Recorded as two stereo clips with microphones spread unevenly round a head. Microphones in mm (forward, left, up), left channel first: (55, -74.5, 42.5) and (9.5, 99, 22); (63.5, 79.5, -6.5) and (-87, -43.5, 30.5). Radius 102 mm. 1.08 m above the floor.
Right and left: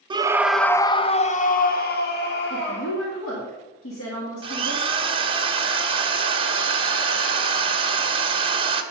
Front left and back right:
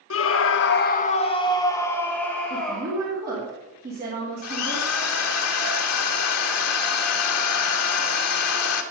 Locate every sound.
0.1 s a scream: 40° left, 0.8 m; by 3.0 s 50° right, 2 m
2.5 s a woman speaking: 90° right, 2 m
4.4 s a drill: 40° left, 1.2 m